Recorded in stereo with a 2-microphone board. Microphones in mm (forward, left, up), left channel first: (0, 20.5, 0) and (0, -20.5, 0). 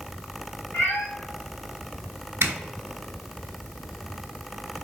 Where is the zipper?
65° right (ahead or behind), 0.6 m.